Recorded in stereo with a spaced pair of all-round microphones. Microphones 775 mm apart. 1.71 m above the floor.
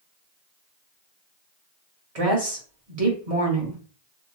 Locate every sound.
2.1 s a woman speaking: 50° right (ahead or behind), 1.3 m